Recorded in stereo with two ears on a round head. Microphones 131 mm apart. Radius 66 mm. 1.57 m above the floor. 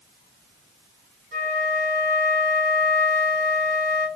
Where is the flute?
45° right (ahead or behind), 1.4 m.